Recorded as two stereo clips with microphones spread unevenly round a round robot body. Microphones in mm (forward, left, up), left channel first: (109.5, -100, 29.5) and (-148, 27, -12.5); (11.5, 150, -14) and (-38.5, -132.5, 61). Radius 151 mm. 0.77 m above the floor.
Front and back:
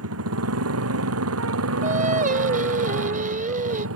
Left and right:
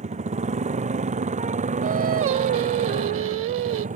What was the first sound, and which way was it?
A motorcycle, 165° right.